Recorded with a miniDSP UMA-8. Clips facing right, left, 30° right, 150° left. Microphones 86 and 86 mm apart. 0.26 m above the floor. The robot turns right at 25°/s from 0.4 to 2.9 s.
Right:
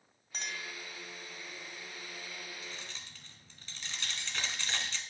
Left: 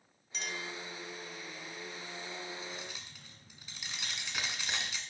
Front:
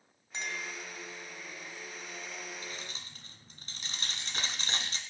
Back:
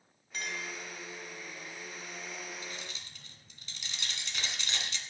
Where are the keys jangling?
5° left, 1.7 m; by 5.0 s 10° left, 1.7 m.